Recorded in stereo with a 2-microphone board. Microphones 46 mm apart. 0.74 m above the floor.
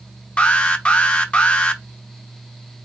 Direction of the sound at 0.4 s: 25° left (ahead or behind).